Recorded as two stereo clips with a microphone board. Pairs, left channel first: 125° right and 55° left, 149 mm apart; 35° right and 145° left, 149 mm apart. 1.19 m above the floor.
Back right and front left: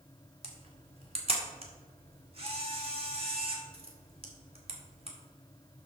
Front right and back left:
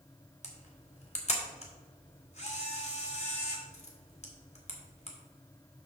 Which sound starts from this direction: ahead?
A camera shutter, at 0.4 s.